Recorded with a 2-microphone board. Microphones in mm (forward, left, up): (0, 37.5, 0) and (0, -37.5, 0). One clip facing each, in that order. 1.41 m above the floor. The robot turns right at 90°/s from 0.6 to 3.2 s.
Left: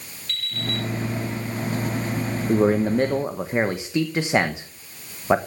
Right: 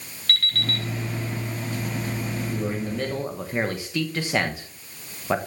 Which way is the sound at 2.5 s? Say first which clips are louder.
Left 13 dB; 95° left.